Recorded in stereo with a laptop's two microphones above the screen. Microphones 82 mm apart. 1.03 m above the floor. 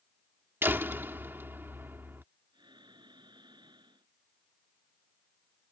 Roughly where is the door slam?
Right.